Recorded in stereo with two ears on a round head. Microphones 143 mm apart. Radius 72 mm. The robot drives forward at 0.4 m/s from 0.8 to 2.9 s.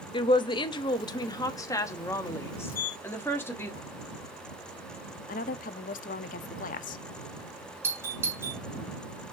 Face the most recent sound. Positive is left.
turn(degrees=-15)  # may be behind; listen again after turning